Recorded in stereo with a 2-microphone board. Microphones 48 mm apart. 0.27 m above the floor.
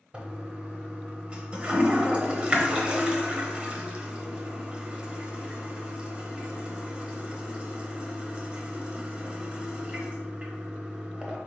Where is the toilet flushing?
20° right (ahead or behind), 0.8 m.